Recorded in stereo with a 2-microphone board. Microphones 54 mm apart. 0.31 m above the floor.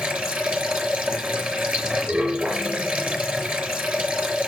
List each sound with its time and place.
0.0 s running water: 25° right (ahead or behind), 4 m